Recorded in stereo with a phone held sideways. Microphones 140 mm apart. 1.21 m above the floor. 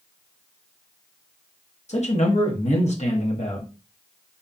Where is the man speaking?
55° left (ahead or behind), 1.0 m.